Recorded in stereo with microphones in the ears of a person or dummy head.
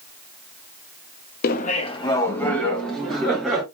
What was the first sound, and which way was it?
Laughter, 60° left (ahead or behind).